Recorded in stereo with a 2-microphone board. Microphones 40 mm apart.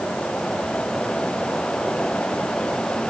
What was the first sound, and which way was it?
Only background noise.